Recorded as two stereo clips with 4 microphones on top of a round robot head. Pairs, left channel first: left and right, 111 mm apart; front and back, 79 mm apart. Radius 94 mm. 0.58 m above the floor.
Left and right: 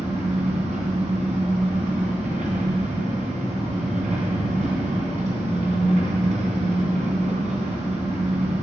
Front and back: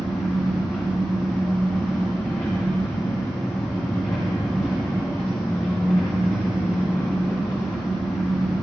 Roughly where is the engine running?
Right.